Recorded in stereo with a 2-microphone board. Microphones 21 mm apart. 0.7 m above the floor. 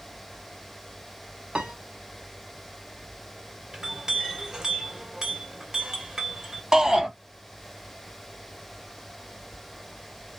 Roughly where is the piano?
Right.